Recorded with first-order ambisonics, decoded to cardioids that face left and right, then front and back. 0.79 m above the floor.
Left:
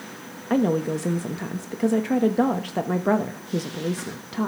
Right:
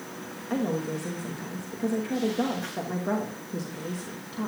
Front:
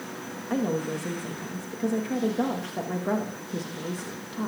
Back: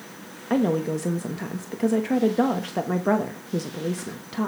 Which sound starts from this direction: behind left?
A woman speaking, at 0.5 s.